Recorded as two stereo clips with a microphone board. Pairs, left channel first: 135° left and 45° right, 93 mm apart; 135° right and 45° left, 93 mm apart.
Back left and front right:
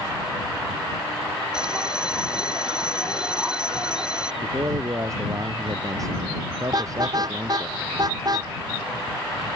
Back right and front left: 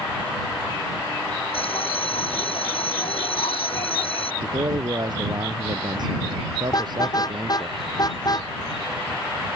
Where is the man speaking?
5° left.